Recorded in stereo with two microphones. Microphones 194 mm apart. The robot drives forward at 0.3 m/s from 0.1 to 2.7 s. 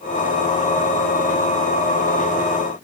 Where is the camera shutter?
I don't hear a camera shutter.